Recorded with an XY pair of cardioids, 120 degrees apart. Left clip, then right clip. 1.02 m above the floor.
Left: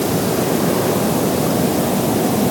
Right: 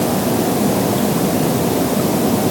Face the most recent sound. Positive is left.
No sound to turn to.